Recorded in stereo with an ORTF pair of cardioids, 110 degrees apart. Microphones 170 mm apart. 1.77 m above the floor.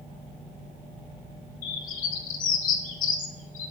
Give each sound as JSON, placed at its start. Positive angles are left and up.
{"t": 1.6, "sound": "a bird", "azimuth_deg": 55, "distance_m": 2.0}